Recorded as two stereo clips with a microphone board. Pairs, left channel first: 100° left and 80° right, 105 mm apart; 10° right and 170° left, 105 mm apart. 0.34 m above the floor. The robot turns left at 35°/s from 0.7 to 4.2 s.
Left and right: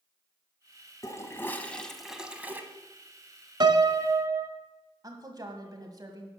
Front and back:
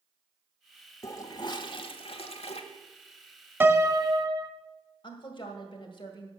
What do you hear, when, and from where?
1.0 s a toilet flushing: 45° left, 1.0 m; by 2.6 s 10° right, 1.0 m
3.6 s a piano: 120° right, 0.6 m; by 4.5 s 140° right, 0.6 m
5.0 s a woman speaking: 35° right, 1.7 m